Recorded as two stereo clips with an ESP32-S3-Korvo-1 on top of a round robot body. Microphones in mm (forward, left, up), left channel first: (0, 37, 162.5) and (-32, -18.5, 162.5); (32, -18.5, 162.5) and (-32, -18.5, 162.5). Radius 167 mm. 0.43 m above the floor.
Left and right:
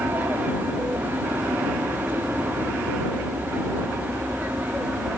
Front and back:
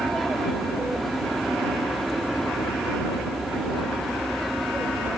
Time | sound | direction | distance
0.0 | an aircraft | 90° right | ?